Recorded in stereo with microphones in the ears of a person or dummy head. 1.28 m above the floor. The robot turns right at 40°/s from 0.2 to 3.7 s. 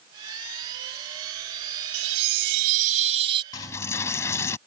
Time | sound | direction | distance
1.9 | a chime | 90° right | ?
3.5 | a dropped coin | 20° left (ahead or behind) | ?